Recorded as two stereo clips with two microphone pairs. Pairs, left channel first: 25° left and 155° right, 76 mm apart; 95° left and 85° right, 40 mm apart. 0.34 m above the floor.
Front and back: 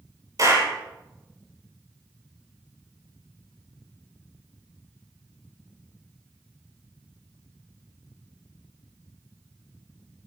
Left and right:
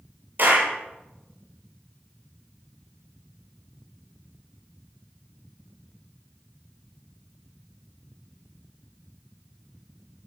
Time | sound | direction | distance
0.4 | a clap | 120° right | 8.5 m